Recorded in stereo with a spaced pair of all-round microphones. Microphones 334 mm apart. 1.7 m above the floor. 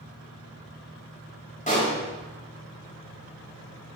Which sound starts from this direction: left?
A pop, at 1.7 s.